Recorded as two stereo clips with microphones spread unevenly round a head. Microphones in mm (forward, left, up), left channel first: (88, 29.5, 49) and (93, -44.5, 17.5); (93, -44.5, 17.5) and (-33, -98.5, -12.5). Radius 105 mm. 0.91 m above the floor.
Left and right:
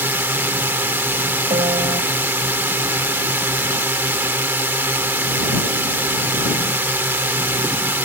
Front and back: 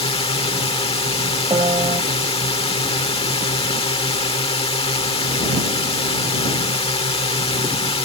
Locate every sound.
0.0 s a drone: 25° right
1.5 s a piano: 100° right